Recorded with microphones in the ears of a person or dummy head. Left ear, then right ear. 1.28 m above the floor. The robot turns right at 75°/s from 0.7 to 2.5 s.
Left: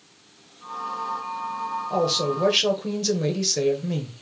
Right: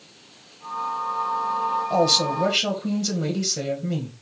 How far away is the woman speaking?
About 1.2 m.